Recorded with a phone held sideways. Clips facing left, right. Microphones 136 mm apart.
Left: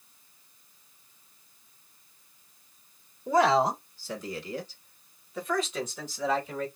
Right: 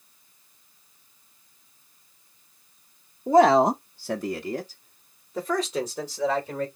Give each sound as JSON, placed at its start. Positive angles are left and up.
{"t": 3.3, "sound": "a man speaking", "side_deg": -30, "distance_m": 0.6}